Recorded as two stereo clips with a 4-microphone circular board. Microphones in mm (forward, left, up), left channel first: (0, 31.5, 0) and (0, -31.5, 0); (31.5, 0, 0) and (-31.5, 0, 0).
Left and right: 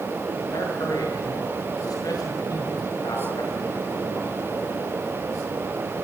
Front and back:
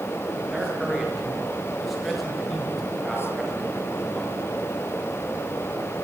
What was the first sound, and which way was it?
A man speaking, 95° left.